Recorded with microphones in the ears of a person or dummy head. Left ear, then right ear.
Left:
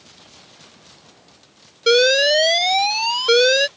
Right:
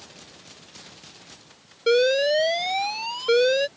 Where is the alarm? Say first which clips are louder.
Left 5 dB; 45° left (ahead or behind).